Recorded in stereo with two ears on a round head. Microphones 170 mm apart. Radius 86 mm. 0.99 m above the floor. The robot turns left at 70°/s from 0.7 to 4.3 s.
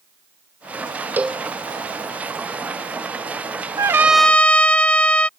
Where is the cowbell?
10° right (ahead or behind); by 1.4 s 10° left (ahead or behind).